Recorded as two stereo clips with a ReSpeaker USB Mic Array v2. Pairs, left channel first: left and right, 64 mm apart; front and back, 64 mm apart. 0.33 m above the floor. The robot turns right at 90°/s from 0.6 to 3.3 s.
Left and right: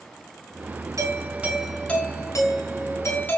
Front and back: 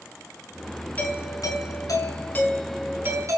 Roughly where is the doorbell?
Ahead right.